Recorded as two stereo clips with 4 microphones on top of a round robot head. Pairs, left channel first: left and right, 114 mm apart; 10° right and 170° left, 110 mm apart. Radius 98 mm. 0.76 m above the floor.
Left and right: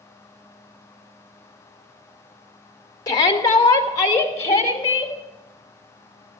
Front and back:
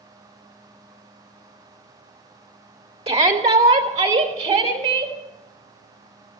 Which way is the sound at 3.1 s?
145° left.